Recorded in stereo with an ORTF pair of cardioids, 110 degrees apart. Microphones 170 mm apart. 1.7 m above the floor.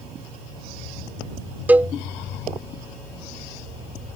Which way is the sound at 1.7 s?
10° right.